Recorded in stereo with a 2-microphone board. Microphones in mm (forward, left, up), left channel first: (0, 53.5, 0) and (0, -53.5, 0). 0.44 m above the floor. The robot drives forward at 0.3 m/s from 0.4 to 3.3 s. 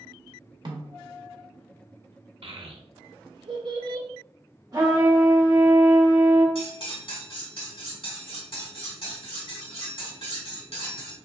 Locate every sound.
0.7 s a snare drum: 50° right (ahead or behind), 0.7 m
2.4 s a child speaking: 55° right (ahead or behind), 0.7 m; by 4.1 s 45° right (ahead or behind), 0.8 m
4.7 s a trumpet: 35° right (ahead or behind), 1.3 m
6.5 s cutlery clinking: 65° left (ahead or behind), 2.0 m